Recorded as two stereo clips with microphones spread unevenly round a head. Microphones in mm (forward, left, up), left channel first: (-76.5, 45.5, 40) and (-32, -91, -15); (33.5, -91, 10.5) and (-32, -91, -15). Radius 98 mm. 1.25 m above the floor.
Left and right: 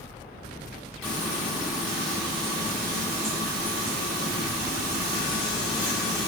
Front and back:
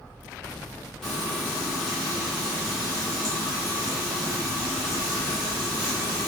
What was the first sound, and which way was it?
Frying, 45° left.